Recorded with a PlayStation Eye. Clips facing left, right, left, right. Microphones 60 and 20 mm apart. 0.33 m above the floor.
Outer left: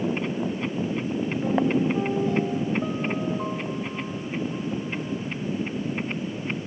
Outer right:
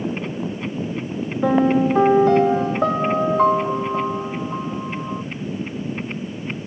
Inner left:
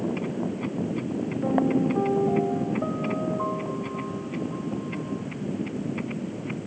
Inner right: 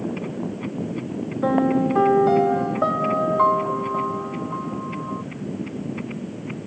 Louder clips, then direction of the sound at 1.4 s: Outer right 7 dB, inner right 4 dB; 75° right (ahead or behind).